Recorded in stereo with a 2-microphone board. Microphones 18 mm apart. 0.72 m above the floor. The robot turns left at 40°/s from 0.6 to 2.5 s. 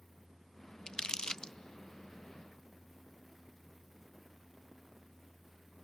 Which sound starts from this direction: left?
Crumpling, at 0.9 s.